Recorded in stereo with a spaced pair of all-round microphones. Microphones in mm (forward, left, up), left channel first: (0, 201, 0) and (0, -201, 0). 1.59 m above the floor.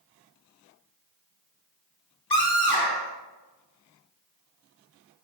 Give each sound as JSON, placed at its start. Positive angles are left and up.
{"t": 2.3, "sound": "a scream", "side_deg": 70, "distance_m": 5.0}